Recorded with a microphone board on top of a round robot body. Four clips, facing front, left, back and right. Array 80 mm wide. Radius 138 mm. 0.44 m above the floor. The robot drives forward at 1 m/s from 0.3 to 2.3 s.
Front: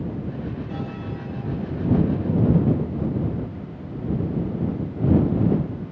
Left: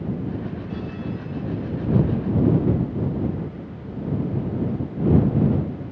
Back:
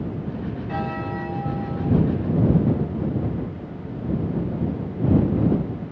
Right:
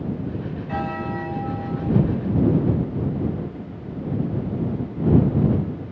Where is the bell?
120° right; by 1.9 s 130° right.